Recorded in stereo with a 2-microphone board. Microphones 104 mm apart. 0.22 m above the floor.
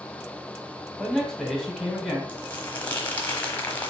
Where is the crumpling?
15° left (ahead or behind), 1.0 m.